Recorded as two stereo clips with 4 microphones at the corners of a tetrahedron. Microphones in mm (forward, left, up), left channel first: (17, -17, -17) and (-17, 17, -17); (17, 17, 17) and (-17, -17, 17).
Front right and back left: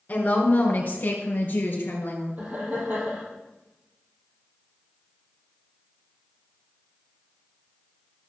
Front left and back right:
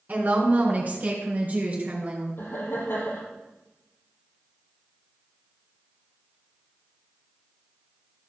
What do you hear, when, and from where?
0.1 s a woman speaking: 90° right, 3 m; by 2.3 s 85° right, 4 m
2.4 s laughter: 80° left, 4.5 m